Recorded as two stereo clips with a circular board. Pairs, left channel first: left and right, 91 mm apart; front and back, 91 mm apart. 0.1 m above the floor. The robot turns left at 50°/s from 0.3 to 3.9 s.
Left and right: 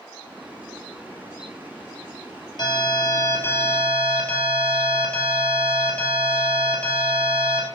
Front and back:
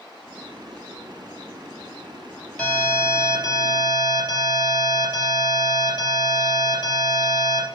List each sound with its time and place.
2.6 s an alarm: 75° left, 2 m; by 7.7 s 10° left, 2 m